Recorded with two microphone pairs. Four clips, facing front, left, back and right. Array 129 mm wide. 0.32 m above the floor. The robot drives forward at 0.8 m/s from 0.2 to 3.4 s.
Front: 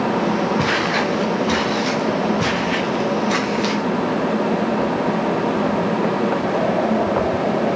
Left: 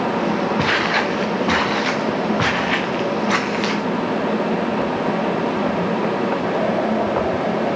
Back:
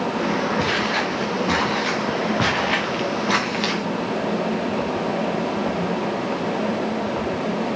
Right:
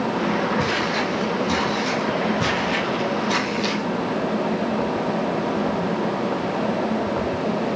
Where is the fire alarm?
I don't hear a fire alarm.